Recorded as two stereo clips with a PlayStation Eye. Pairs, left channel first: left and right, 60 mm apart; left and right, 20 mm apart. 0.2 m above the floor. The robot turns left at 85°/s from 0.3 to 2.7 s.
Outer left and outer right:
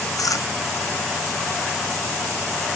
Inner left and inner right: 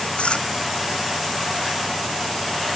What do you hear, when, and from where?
0.2 s chewing: 75° left (ahead or behind); by 0.5 s 60° left (ahead or behind)